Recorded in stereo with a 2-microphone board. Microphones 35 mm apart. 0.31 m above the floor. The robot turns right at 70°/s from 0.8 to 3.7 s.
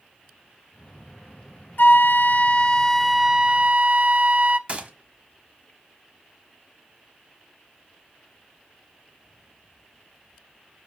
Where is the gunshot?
40° right (ahead or behind), 1.0 m.